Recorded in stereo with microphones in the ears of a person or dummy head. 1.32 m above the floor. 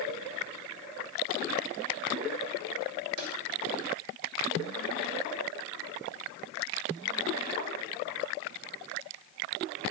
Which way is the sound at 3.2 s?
55° right (ahead or behind).